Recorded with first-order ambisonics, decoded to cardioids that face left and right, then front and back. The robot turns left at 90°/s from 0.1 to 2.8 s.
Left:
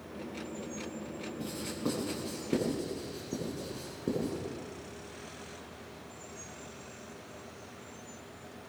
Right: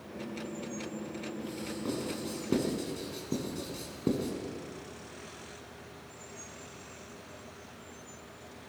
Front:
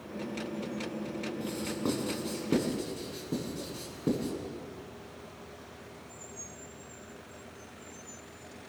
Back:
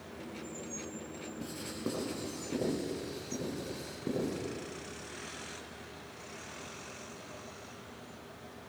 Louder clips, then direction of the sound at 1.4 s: Left 4 dB, front 4 dB; 50° left.